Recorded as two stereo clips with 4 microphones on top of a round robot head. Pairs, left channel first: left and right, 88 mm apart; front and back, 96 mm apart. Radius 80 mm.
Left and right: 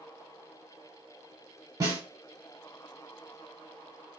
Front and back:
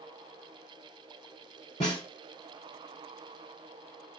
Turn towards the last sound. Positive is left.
turn(degrees=-50)